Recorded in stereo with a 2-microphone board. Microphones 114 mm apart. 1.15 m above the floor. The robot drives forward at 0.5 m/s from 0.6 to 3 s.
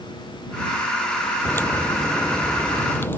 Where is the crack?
15° left (ahead or behind).